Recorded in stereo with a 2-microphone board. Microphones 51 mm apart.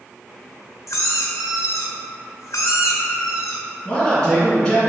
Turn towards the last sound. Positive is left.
turn(degrees=15)  # may be behind; listen again after turning